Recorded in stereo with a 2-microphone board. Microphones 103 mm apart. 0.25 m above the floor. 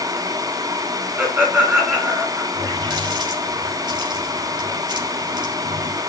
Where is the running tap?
50° right (ahead or behind), 3.5 m.